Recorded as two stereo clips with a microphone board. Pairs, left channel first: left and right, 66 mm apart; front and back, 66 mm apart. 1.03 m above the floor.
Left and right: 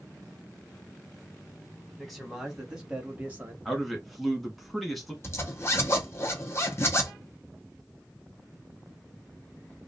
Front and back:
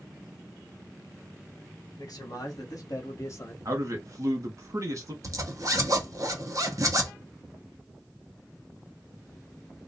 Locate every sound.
2.0 s a man speaking: 5° left, 1.4 m; by 3.5 s 35° right, 0.9 m
3.6 s a man speaking: straight behind, 1.0 m
5.2 s a zipper: 140° left, 0.7 m